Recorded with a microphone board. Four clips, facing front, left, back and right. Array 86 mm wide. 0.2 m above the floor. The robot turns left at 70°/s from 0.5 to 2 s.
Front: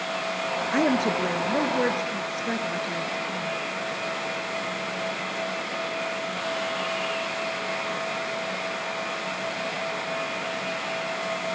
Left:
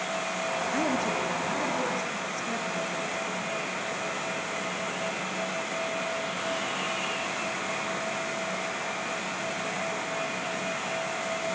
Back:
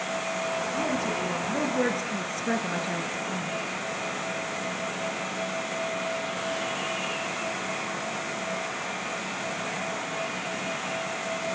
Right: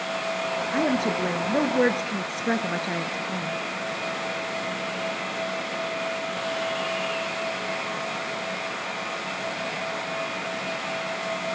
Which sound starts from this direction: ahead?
A woman speaking, at 0.7 s.